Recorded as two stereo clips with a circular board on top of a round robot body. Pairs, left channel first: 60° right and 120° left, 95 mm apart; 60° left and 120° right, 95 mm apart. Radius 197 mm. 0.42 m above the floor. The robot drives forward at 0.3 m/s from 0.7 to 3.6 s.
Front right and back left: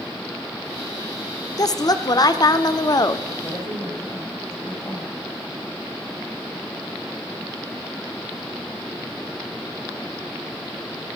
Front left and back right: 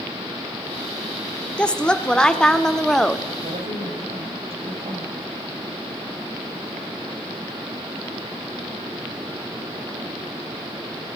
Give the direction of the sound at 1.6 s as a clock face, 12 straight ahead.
1 o'clock.